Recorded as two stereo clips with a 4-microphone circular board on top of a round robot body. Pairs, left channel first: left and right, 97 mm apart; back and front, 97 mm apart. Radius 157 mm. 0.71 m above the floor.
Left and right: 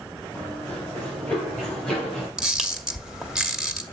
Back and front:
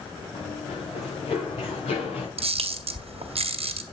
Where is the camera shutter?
5° right, 1.5 m.